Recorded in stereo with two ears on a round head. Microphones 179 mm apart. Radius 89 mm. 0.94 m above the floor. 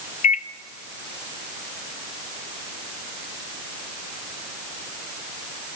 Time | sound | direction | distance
0.2 | a microwave | 35° left (ahead or behind) | 0.6 m